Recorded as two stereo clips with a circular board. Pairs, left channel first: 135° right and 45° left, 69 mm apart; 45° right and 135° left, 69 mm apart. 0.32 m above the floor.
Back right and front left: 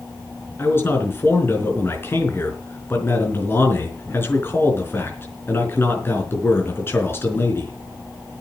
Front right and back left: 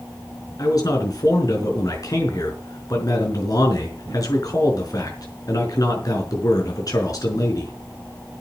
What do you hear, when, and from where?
0.6 s a man speaking: 80° right, 5 m